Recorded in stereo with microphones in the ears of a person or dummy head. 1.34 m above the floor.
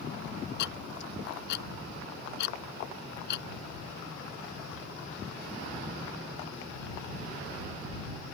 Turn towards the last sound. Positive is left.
turn(degrees=70)  # may be behind; listen again after turning